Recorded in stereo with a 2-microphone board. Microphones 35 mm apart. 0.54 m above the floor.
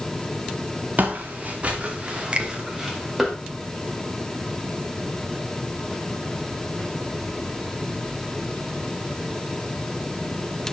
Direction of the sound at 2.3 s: 35° right (ahead or behind).